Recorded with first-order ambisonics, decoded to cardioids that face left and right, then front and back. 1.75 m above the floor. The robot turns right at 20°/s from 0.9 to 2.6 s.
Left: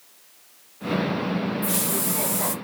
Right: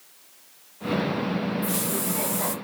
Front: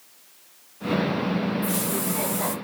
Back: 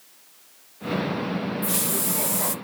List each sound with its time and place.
1.6 s a hiss: 140° left, 0.5 m; by 2.5 s 160° left, 0.5 m